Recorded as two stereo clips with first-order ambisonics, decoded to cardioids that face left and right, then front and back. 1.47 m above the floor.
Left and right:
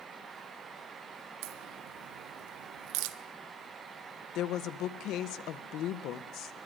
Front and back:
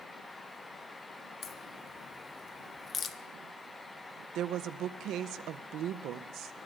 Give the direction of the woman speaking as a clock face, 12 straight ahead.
7 o'clock.